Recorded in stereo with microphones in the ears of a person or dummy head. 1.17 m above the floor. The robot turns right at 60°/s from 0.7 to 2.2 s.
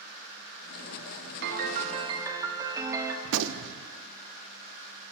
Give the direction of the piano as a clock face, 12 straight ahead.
2 o'clock.